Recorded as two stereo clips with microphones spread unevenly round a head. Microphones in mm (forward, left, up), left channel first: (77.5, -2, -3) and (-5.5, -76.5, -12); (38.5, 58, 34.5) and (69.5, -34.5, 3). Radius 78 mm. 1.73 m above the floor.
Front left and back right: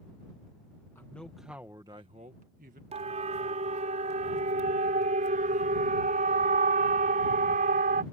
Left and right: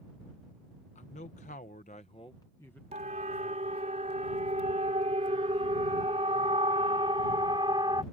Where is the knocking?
No knocking in this recording.